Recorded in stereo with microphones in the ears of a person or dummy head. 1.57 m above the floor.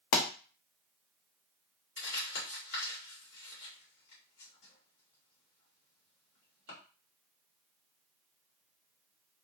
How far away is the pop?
About 0.6 m.